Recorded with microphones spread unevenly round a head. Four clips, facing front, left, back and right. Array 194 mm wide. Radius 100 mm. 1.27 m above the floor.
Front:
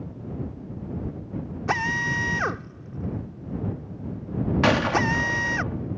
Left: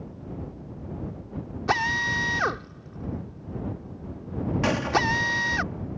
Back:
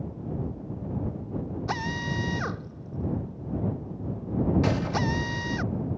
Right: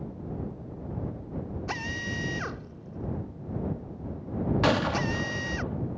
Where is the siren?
I don't hear a siren.